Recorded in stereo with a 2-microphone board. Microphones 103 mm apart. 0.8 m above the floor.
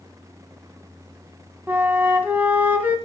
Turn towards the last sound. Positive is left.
turn(degrees=-15)  # may be behind; listen again after turning